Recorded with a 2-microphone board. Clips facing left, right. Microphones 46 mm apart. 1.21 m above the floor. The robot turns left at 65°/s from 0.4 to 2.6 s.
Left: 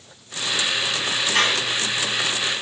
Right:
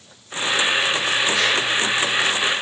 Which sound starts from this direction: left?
A squeak, at 1.3 s.